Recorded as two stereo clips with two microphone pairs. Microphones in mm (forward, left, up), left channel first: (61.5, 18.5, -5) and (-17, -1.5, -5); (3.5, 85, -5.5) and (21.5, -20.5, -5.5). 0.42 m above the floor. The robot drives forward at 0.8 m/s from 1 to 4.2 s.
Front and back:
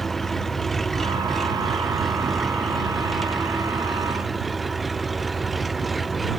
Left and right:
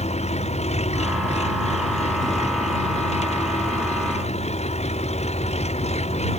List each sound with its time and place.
0.0 s an engine running: 100° left; by 6.4 s 105° left